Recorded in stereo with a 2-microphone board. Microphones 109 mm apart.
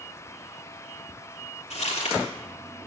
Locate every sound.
1.7 s crumpling: 85° left, 3.5 m